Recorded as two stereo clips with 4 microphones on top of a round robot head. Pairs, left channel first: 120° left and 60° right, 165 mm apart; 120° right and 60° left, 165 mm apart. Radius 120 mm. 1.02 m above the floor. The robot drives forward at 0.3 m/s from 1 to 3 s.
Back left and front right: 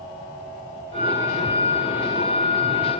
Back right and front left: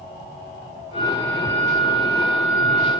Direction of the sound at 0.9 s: 85° right.